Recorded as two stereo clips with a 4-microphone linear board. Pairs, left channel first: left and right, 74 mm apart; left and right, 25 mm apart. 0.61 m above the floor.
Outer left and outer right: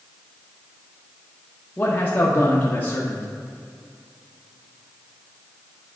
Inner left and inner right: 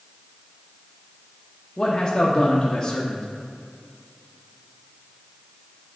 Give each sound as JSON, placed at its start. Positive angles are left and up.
{"t": 1.8, "sound": "a man speaking", "side_deg": 30, "distance_m": 0.8}